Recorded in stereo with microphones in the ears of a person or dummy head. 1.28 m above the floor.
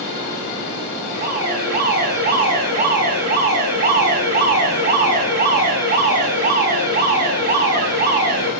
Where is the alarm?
50° right (ahead or behind), 6.5 m.